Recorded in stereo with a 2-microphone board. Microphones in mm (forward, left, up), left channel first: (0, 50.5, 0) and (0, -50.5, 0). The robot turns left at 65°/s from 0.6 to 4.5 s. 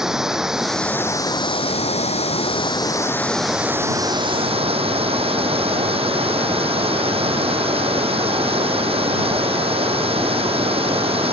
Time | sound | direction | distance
0.0 | running water | 175° right | ?